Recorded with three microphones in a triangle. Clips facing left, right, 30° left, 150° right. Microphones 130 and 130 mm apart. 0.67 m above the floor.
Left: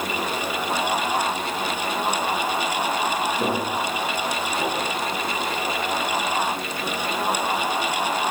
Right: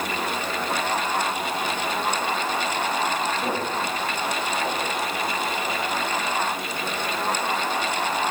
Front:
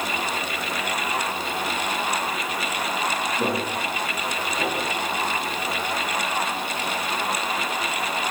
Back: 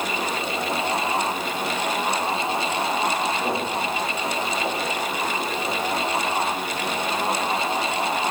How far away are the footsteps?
About 6.5 m.